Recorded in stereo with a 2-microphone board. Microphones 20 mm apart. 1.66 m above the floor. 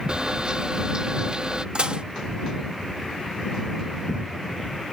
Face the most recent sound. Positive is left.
turn(degrees=-55)  # may be behind; listen again after turning